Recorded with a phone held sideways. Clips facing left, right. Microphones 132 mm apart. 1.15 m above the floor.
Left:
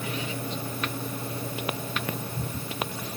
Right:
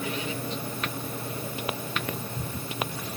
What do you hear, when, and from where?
Only background noise.